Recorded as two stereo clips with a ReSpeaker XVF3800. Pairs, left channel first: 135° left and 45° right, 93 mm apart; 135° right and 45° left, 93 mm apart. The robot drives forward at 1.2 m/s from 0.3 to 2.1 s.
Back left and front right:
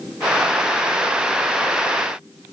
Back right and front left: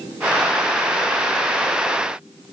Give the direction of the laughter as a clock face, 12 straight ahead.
No laughter in this recording.